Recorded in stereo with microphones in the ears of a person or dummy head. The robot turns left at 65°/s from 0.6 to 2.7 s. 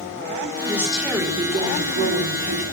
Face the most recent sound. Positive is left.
turn(degrees=-115)